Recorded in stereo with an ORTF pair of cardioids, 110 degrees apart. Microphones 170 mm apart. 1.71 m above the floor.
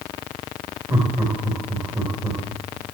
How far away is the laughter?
About 4 m.